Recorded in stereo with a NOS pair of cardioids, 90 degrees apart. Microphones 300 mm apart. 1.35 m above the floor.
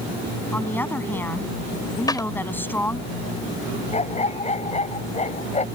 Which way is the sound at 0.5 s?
5° left.